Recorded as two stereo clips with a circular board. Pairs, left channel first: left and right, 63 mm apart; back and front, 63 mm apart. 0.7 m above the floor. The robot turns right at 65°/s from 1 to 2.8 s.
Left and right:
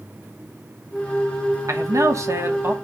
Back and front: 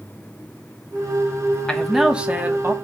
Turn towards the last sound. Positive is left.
turn(degrees=-30)